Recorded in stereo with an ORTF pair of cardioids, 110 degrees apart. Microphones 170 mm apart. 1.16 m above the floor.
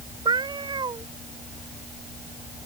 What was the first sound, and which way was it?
A cat meowing, 25° right.